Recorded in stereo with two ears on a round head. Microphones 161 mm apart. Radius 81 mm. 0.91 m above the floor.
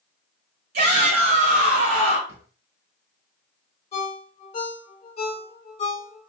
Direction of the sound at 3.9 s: 40° left (ahead or behind).